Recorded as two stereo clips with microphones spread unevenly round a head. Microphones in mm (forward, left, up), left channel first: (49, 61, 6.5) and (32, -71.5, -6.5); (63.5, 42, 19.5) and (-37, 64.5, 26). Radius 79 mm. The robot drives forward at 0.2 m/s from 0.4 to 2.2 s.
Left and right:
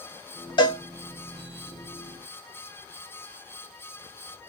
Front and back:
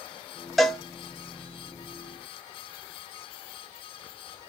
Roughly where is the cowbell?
Left.